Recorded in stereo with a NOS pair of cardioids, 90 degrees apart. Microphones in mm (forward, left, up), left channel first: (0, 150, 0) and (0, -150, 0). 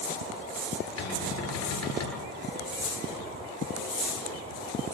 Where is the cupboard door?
60° left, 9.5 m.